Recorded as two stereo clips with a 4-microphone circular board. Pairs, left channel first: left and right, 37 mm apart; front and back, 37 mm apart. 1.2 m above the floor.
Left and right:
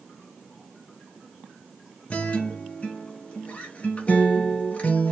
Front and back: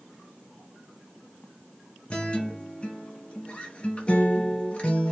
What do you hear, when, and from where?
2.1 s a guitar: 50° left, 0.7 m